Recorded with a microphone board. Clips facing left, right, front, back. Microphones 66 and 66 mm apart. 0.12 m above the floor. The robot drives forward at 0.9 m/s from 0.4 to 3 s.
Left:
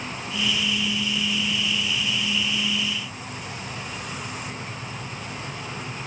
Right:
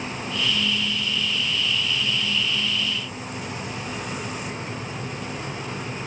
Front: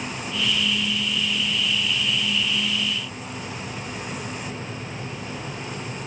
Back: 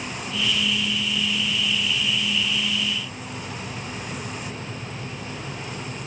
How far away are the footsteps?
I don't hear footsteps.